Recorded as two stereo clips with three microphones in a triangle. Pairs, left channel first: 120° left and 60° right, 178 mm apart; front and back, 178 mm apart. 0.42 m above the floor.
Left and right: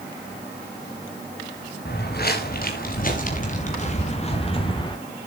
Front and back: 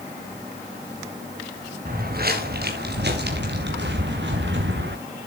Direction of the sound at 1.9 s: 145° left.